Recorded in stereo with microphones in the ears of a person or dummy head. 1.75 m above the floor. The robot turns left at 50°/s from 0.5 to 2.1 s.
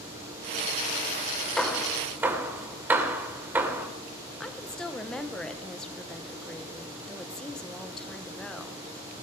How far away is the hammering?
About 1.8 m.